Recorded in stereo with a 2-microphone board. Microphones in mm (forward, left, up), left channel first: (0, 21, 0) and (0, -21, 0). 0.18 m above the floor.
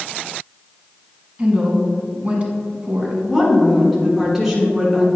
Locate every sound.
1.4 s a woman speaking: 30° right (ahead or behind), 1.4 m
3.2 s a woman speaking: 5° right (ahead or behind), 2 m